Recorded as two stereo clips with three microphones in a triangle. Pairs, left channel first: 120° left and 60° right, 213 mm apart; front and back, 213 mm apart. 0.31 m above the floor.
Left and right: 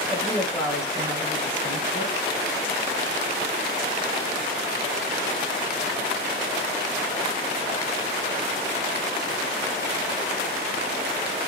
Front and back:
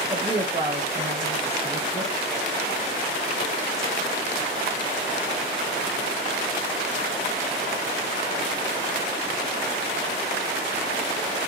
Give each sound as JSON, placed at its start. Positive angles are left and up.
{"t": 0.1, "sound": "a woman speaking", "azimuth_deg": 170, "distance_m": 1.2}